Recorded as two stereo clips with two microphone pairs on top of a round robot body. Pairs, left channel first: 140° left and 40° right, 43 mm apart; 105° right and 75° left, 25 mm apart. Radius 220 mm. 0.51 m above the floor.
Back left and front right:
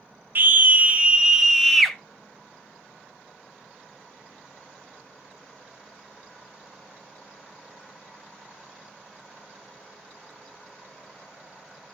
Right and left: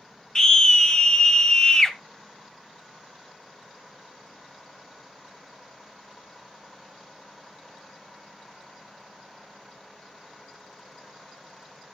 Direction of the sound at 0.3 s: 65° right.